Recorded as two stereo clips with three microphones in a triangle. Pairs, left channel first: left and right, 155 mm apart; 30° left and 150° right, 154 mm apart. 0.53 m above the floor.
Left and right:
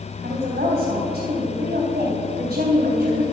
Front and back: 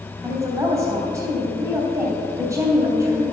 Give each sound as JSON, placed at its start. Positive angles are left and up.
{"t": 0.2, "sound": "a woman speaking", "azimuth_deg": -80, "distance_m": 3.0}